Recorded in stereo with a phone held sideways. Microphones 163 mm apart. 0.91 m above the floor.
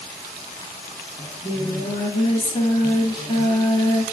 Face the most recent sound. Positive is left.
turn(degrees=25)  # may be behind; listen again after turning